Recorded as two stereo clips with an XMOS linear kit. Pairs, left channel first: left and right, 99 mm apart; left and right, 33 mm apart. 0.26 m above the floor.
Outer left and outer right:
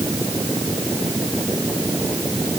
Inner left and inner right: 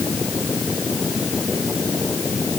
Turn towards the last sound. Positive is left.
No sound to turn to.